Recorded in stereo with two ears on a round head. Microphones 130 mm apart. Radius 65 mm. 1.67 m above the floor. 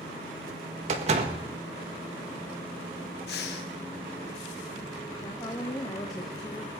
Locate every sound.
0.9 s a door slam: 45° right (ahead or behind), 1.5 m
3.3 s breathing: 75° left (ahead or behind), 1.3 m
5.2 s a woman speaking: 25° left (ahead or behind), 1.0 m